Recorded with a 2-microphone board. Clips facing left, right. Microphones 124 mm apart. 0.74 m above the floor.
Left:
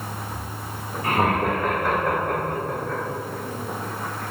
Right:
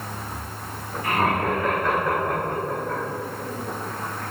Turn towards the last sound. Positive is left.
turn(degrees=-5)  # may be behind; listen again after turning